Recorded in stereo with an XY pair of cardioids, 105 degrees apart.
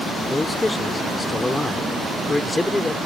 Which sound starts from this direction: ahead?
A man speaking, at 0.3 s.